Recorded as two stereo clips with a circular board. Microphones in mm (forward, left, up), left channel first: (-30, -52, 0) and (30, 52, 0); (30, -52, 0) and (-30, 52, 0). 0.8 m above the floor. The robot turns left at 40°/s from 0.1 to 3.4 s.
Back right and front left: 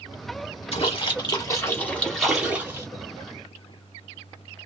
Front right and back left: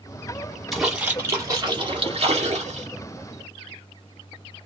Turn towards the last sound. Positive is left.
turn(degrees=100)